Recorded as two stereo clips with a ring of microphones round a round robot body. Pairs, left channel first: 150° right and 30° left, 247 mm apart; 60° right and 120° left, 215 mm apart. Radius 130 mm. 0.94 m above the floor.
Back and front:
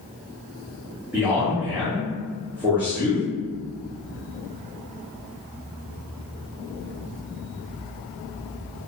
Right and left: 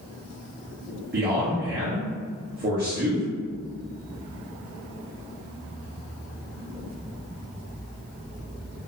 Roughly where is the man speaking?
Left.